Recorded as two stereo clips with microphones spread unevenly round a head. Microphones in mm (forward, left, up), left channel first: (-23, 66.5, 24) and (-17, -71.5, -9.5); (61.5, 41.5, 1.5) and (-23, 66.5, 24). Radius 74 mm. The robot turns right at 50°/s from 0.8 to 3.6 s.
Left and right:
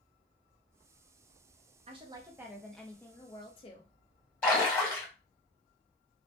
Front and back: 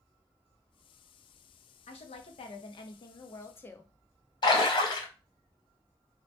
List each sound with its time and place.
1.9 s a woman speaking: 30° right, 0.5 m; by 3.9 s 55° left, 0.5 m
4.4 s a splash: 20° left, 1.2 m